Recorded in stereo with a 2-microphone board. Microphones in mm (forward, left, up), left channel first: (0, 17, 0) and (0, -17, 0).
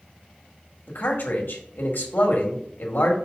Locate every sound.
0.9 s a man speaking: 80° left, 1.7 m